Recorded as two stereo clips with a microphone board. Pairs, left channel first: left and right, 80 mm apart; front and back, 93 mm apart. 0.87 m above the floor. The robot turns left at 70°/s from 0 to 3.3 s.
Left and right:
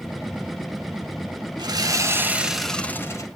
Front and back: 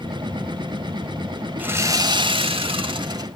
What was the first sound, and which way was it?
Sawing, 110° right.